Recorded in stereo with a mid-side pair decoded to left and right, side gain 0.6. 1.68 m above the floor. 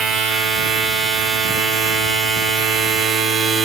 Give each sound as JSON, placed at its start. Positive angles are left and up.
{"t": 0.0, "sound": "a machine running", "azimuth_deg": -50, "distance_m": 3.0}